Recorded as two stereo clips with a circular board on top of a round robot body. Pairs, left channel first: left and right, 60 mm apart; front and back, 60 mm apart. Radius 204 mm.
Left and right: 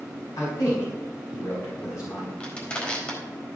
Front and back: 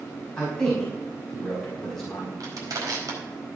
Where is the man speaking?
80° left, 5 m.